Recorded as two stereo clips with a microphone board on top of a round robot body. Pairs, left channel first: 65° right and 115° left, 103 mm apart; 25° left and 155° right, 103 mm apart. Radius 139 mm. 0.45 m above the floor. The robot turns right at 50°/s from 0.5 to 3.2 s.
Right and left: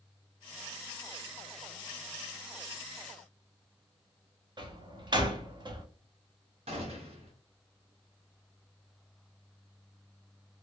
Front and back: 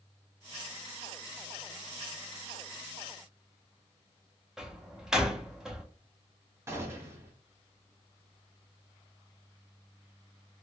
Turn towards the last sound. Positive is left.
turn(degrees=135)